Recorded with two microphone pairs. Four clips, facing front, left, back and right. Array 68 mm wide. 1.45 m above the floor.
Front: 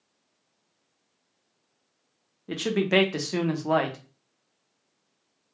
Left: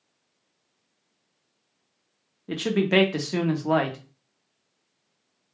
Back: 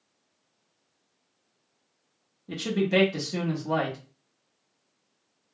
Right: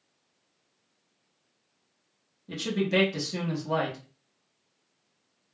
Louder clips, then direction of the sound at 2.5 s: Left 5 dB, front 1 dB; 45° left.